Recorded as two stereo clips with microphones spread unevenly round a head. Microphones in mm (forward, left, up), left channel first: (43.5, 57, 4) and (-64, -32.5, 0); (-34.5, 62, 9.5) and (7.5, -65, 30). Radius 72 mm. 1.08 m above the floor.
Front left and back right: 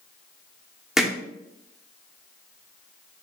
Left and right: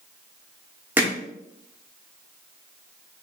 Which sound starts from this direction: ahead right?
Hammering, at 1.0 s.